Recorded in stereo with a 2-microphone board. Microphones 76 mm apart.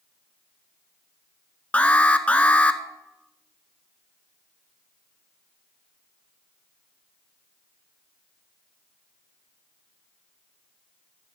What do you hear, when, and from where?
1.7 s an alarm: 20° left (ahead or behind), 0.7 m